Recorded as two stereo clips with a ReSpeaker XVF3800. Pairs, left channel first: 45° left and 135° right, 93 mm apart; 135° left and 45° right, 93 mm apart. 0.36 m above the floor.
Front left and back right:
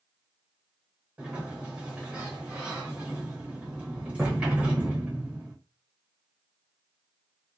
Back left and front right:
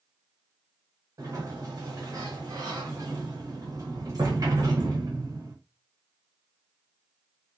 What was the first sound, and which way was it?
A sliding door, 65° right.